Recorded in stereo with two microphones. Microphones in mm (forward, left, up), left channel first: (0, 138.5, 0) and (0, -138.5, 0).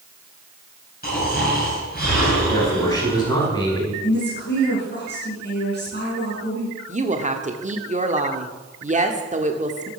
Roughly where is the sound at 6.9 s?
Right.